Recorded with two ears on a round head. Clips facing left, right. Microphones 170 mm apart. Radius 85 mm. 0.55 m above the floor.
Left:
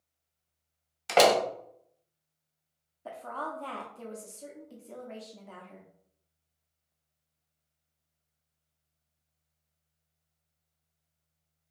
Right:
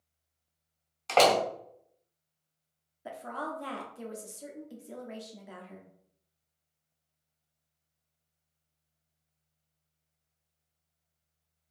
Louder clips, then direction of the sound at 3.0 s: Even; 15° right (ahead or behind).